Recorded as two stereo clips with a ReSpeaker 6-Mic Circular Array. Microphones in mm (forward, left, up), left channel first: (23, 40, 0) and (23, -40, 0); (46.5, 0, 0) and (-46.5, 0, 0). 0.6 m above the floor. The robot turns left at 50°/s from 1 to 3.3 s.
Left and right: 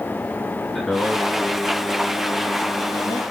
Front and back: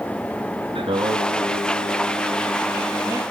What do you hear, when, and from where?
0.8 s singing: 175° left, 2.5 m; by 3.2 s 65° left, 2.5 m